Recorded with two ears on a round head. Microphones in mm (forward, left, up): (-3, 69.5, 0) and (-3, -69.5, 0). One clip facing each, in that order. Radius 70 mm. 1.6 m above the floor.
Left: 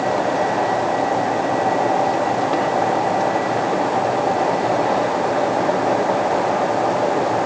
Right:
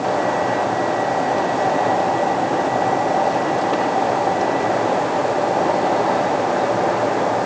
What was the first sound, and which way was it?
Only background noise.